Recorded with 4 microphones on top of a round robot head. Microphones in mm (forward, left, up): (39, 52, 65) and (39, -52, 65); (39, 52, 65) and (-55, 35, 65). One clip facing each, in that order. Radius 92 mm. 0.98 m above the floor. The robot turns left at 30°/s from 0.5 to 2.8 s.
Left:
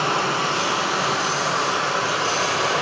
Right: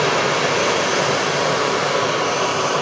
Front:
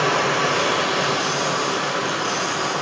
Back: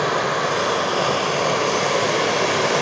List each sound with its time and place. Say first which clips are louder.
0.0 s running water: right 4 dB, front 1 dB; 90° right, 1.3 m; by 2.8 s 160° right, 1.3 m